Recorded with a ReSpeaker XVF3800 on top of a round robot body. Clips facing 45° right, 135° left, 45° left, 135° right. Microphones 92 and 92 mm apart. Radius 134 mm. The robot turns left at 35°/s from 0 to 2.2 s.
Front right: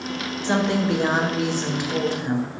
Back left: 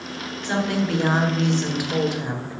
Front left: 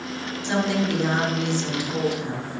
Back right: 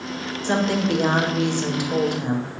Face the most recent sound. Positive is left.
turn(degrees=-155)